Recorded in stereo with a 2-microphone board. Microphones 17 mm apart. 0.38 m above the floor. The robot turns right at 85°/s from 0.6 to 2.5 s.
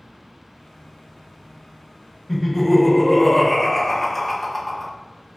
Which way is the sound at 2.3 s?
5° left (ahead or behind).